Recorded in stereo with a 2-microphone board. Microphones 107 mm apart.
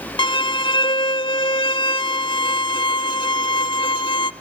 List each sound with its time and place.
0.2 s a violin: 50° left (ahead or behind), 0.5 m